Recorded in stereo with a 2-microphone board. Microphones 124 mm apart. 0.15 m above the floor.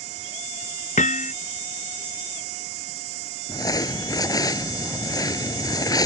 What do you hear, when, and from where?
1.0 s hammering: 80° left
3.5 s crumpling: 30° left (ahead or behind)